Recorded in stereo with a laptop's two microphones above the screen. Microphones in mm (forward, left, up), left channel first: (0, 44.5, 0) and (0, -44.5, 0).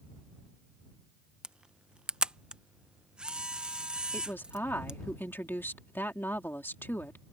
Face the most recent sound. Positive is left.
turn(degrees=25)  # may be behind; listen again after turning